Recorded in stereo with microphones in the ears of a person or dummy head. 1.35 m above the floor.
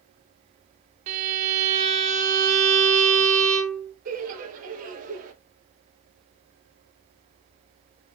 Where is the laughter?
45° right (ahead or behind), 1.1 m.